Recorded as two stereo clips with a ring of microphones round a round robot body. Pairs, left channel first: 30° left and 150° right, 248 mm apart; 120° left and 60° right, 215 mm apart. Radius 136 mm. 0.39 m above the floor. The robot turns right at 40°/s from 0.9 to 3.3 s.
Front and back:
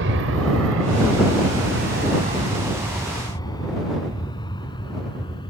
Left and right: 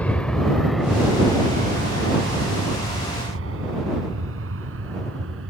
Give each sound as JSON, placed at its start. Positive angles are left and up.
{"t": 0.0, "sound": "an aircraft", "azimuth_deg": -160}